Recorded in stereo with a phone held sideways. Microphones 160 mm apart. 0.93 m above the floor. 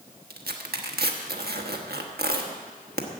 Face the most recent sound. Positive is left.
turn(degrees=-80)